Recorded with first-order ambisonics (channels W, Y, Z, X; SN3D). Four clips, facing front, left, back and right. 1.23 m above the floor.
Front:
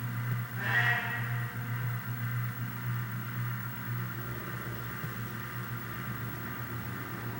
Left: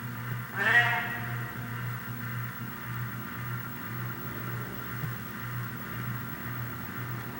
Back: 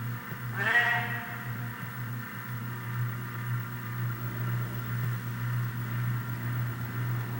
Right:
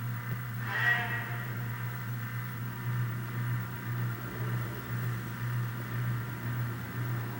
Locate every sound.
0.5 s a cat meowing: 120° left, 7 m